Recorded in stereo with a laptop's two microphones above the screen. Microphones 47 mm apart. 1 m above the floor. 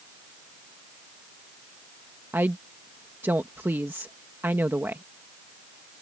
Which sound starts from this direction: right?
A woman speaking, at 2.3 s.